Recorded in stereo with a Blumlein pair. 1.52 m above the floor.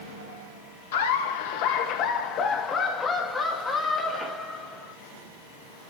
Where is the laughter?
60° left, 1.7 m; by 4.9 s 5° right, 2.5 m.